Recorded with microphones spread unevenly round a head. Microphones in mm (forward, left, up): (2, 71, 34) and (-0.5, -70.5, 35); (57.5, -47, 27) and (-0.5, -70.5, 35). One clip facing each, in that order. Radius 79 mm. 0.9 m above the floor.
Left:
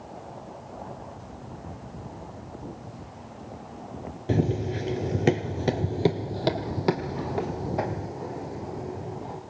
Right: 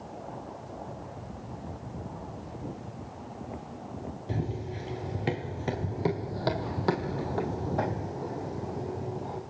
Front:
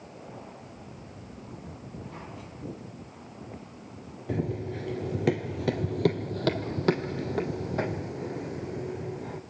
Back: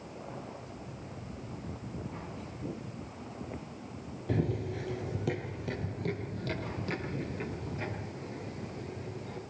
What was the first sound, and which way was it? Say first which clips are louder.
Running footsteps: left 10 dB, front 1 dB; 110° left.